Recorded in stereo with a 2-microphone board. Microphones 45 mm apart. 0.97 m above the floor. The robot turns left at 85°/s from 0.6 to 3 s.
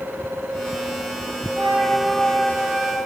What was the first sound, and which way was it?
A flute, 130° right.